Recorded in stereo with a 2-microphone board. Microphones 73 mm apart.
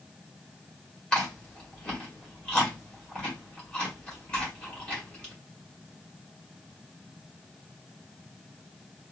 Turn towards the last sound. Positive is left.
turn(degrees=15)  # may be behind; listen again after turning